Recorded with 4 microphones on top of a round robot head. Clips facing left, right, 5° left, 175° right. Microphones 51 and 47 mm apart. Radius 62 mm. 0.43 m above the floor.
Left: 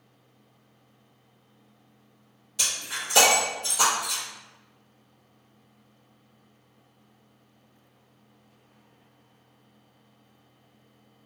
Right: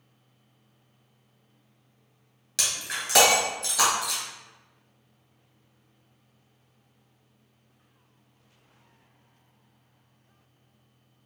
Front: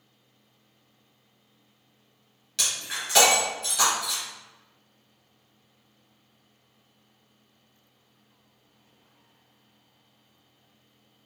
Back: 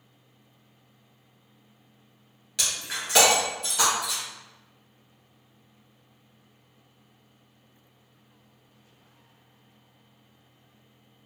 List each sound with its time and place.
2.6 s breaking glass: 95° right, 1.9 m